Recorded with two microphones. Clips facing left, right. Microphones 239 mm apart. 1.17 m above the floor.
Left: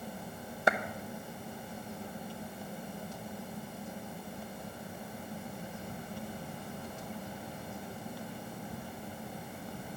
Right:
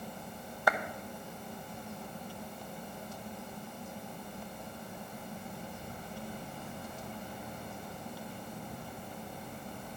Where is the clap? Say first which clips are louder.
Left 2 dB; 25° left (ahead or behind), 0.9 m.